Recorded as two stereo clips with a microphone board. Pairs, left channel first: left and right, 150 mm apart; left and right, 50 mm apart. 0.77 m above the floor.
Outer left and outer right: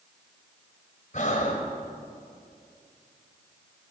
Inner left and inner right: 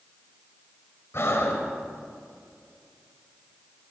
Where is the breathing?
60° left (ahead or behind), 1.6 m.